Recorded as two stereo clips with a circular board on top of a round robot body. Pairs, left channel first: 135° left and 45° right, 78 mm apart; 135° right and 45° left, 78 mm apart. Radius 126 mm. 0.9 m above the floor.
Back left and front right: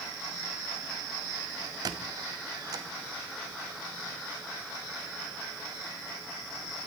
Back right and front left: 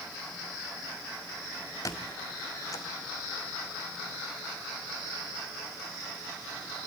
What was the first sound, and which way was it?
A squeak, 85° right.